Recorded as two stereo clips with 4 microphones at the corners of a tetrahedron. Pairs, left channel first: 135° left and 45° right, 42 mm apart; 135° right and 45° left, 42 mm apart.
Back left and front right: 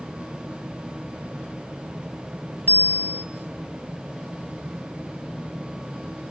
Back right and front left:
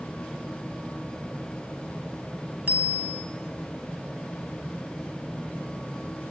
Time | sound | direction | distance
2.7 | a bicycle bell | 90° left | 2 m